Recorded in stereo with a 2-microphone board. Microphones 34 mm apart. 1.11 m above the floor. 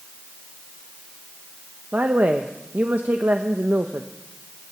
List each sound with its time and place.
1.9 s a woman speaking: 70° right (ahead or behind), 0.9 m